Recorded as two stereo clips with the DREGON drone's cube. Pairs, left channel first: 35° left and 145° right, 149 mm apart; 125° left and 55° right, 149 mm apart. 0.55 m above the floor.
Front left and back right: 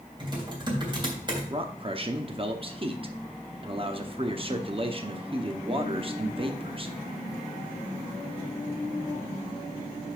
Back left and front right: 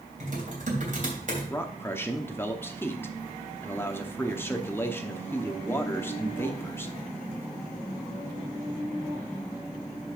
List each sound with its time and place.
0.2 s typing on a keyboard: 85° right, 3 m
1.5 s a man speaking: 170° right, 0.8 m